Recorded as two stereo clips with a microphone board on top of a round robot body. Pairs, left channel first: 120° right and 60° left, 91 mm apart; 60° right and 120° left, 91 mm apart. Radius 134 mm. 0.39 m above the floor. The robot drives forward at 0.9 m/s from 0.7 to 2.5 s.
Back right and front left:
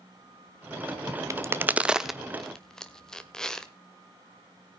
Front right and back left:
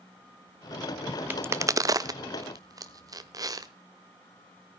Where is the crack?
70° left, 0.8 m; by 3.7 s 160° left, 1.2 m.